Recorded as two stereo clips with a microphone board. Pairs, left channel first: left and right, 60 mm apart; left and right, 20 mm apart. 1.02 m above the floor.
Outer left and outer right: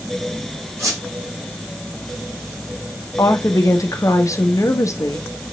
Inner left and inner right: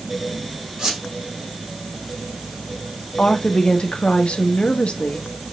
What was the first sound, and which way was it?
A squeak, 55° right (ahead or behind).